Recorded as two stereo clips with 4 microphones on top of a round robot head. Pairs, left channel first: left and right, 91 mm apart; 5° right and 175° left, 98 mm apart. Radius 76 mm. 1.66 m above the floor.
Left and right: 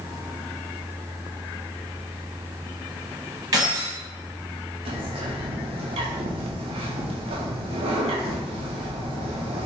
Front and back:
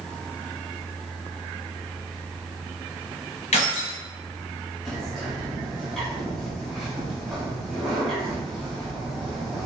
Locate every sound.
3.5 s keys jangling: 25° right, 1.3 m
4.8 s a bird: 95° right, 0.8 m